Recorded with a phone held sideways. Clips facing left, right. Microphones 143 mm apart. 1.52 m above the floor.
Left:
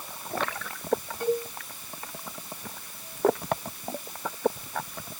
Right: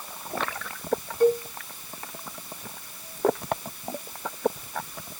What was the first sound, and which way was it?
A cowbell, 40° right (ahead or behind).